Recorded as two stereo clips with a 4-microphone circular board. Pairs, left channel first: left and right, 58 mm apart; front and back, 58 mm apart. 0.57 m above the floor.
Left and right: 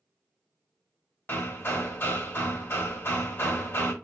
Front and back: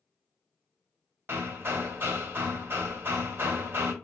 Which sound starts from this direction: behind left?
Hammering, at 1.3 s.